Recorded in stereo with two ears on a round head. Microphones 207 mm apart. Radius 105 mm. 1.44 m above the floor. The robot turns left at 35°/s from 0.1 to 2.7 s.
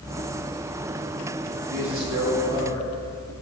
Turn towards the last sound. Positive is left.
turn(degrees=-125)